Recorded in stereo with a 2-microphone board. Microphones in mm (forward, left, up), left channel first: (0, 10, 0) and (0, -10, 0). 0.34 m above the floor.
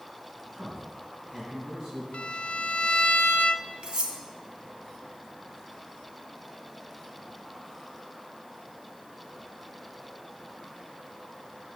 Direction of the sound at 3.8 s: 60° right (ahead or behind).